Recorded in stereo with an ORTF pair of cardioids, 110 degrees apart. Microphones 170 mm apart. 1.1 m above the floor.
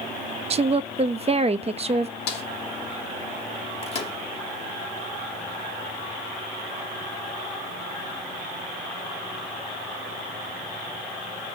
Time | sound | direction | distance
0.5 | a woman speaking | 35° right | 0.9 m
2.3 | a snare drum | 65° left | 3 m
3.8 | a microwave | 35° left | 2 m